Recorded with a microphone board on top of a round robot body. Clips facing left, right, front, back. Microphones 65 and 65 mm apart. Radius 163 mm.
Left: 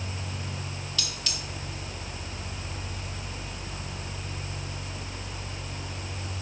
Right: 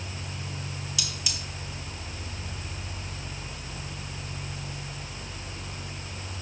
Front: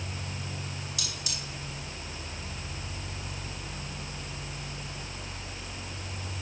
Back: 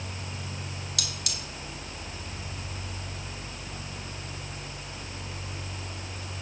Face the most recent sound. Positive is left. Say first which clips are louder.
# even, back 1 dB
turn(degrees=-165)